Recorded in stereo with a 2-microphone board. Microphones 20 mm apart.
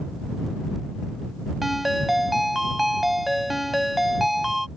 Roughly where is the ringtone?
Centre.